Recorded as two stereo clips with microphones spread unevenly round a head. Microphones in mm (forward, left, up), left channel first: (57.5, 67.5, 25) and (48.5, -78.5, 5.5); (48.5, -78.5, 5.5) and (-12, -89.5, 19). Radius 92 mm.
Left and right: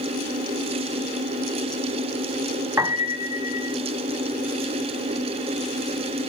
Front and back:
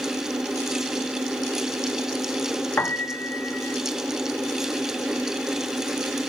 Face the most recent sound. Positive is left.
turn(degrees=-30)